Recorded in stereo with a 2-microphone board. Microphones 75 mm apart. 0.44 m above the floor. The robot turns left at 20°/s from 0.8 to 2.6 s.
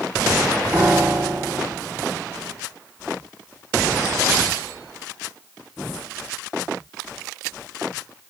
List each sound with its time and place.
0.7 s a piano: 25° right (ahead or behind), 0.6 m; by 1.8 s 40° right (ahead or behind), 0.6 m